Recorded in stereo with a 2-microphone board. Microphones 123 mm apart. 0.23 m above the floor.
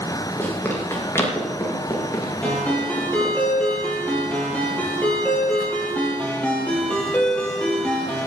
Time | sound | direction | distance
0.4 | running footsteps | 15° left (ahead or behind) | 5.5 m
2.4 | a ringtone | 10° left (ahead or behind) | 4.5 m